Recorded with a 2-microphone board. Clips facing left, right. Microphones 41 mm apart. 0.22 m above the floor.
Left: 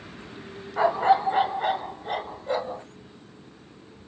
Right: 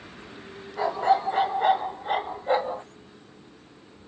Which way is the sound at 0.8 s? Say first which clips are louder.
Left 2 dB; 40° left (ahead or behind).